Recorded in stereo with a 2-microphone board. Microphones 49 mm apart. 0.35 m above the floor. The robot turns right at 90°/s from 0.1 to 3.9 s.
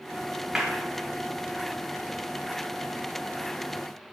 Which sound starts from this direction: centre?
A clap, at 0.6 s.